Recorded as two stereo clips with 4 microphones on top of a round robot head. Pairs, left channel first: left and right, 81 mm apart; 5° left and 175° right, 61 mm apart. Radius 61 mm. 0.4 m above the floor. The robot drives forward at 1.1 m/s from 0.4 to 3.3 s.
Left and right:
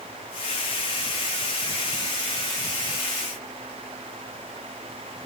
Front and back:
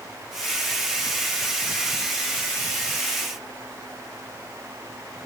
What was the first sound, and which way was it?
Only background noise.